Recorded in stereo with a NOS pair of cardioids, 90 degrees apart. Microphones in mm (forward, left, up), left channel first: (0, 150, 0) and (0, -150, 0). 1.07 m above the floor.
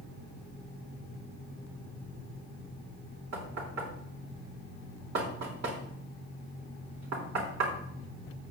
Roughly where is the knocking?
Ahead right.